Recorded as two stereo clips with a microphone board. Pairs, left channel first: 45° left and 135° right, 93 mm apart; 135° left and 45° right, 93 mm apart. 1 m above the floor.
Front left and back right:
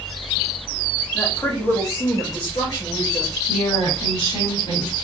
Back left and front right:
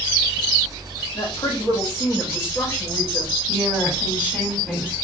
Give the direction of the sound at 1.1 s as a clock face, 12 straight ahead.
8 o'clock.